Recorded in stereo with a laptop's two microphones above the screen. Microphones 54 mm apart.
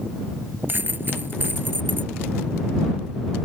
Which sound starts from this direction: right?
A dropped coin, at 0.7 s.